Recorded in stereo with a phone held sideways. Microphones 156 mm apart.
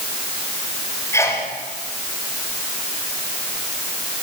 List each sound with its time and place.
1.1 s a sneeze: 20° left (ahead or behind), 6 m